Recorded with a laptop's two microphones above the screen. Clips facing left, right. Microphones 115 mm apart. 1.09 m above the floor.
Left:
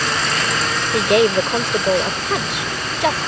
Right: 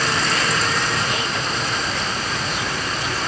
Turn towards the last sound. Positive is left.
turn(degrees=80)